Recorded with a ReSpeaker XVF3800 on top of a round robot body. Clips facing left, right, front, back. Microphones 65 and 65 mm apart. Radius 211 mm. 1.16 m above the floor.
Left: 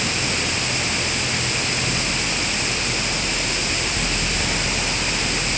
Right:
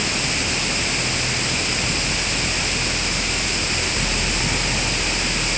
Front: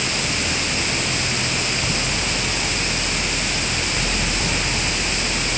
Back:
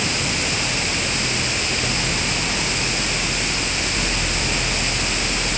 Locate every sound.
Only background noise.